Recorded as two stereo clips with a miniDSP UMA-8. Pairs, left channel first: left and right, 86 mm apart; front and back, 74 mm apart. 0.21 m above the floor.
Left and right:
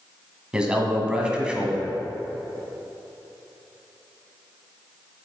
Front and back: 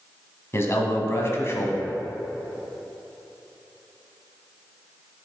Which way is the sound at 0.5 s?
15° right.